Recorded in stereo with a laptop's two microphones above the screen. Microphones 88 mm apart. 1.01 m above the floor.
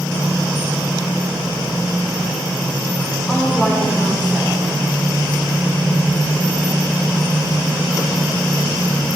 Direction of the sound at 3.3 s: 10° left (ahead or behind).